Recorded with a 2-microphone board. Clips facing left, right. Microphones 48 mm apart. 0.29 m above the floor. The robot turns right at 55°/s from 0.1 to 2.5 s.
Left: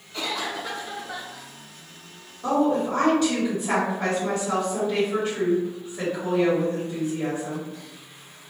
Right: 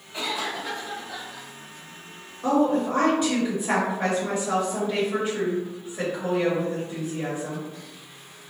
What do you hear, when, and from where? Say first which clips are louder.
0.1 s a cough: even; 25° right, 1.3 m; by 1.5 s 50° left, 1.3 m
2.4 s a woman speaking: even; 15° right (ahead or behind), 1.5 m